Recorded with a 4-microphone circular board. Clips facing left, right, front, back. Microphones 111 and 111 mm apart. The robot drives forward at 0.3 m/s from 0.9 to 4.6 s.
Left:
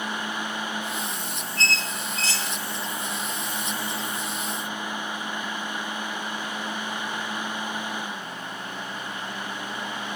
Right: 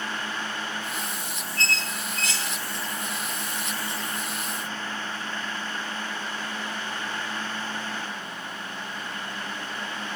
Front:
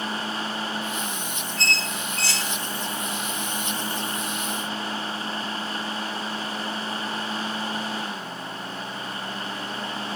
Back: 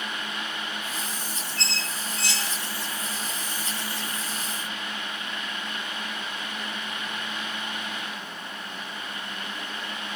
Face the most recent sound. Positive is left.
turn(degrees=160)